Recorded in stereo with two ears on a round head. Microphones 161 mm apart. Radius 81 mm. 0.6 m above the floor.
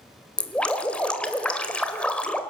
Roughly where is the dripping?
Centre.